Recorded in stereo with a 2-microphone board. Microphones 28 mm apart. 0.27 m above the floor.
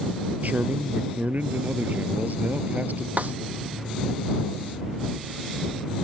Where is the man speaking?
70° right (ahead or behind).